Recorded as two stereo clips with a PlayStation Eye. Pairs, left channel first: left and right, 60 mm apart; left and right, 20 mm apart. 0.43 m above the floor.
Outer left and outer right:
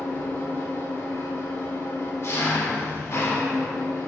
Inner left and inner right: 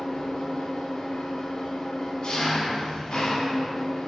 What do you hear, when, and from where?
0.0 s an engine running: 50° left (ahead or behind), 0.7 m